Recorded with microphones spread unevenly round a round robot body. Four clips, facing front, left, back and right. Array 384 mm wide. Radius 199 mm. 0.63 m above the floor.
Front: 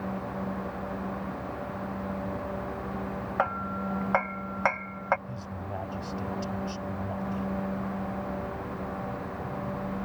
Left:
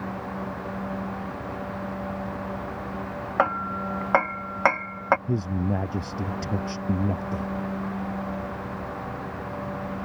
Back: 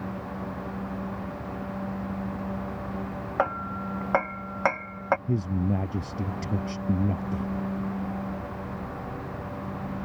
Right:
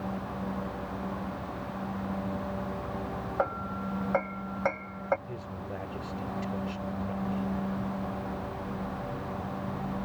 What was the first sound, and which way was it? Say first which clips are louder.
Hammering: left 7 dB, back 2 dB; 100° left.